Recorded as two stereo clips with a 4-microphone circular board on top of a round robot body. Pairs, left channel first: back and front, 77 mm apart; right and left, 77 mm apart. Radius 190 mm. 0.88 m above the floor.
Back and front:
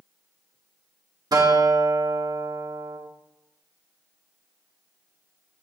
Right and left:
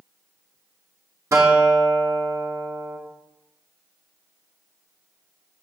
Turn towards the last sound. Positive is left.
turn(degrees=40)